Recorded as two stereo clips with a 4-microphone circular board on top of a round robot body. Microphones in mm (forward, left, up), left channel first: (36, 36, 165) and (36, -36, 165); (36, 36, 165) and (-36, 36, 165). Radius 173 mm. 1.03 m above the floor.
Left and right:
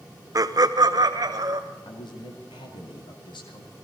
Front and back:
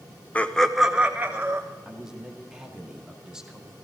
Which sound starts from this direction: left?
A man speaking, at 1.9 s.